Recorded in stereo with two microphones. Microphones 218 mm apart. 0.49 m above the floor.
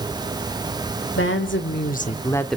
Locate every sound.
1.2 s a woman speaking: 60° left (ahead or behind), 1.4 m; by 2.6 s centre (ahead or behind), 0.9 m